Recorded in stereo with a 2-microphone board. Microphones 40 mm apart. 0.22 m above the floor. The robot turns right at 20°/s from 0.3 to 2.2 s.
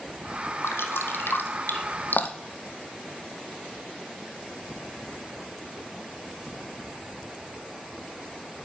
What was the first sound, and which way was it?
Dripping, 80° left.